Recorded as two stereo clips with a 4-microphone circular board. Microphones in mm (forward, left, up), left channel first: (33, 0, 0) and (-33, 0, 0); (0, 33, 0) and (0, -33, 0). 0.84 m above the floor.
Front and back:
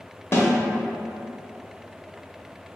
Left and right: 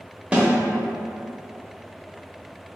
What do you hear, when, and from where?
0.3 s a snare drum: 30° right, 0.7 m